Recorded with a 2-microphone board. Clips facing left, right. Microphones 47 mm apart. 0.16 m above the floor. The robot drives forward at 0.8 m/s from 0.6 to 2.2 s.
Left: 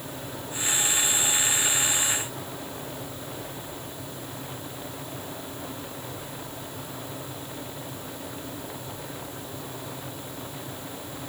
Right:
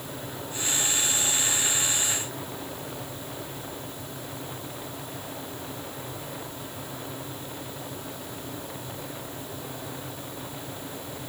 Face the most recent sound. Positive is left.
No sound to turn to.